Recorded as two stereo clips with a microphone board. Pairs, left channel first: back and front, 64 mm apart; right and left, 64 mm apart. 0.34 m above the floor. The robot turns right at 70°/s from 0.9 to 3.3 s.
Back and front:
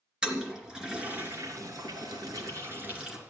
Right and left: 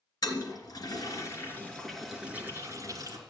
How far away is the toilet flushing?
About 3 m.